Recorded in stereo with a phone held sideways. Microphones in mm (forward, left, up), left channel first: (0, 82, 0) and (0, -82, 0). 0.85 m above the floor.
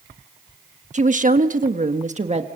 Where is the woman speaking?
45° right (ahead or behind), 1.3 m; by 2.5 s 40° right (ahead or behind), 1.4 m.